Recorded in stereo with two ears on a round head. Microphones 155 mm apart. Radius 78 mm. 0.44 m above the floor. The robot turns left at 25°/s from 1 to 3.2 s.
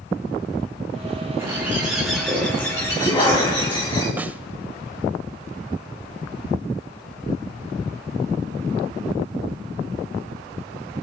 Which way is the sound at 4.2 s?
10° right (ahead or behind).